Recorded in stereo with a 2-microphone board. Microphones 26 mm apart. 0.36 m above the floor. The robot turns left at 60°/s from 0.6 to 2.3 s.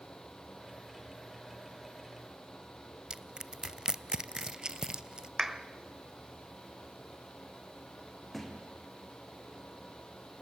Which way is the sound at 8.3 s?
5° left (ahead or behind).